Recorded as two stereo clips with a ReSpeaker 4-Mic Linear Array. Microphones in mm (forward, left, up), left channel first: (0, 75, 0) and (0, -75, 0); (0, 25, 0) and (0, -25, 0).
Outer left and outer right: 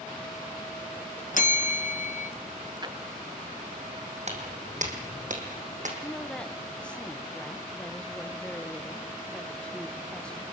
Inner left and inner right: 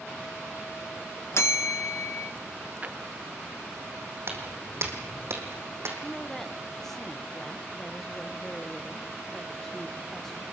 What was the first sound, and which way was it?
A bell, 60° left (ahead or behind).